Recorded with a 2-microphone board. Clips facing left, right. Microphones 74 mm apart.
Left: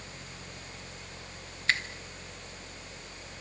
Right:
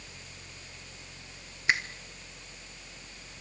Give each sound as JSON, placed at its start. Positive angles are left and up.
{"t": 1.7, "sound": "a finger snap", "side_deg": -15, "distance_m": 1.6}